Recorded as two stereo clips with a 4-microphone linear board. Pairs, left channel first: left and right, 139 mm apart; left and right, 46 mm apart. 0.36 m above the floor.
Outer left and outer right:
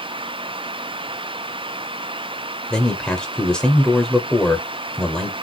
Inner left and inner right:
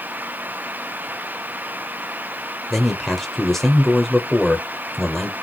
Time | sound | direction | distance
2.7 | a man speaking | 5° left (ahead or behind) | 1.1 m